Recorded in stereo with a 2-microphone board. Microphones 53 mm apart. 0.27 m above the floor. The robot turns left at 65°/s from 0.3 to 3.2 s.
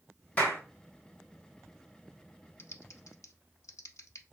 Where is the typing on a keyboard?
50° left (ahead or behind), 0.6 m; by 4.2 s 75° left (ahead or behind), 0.6 m.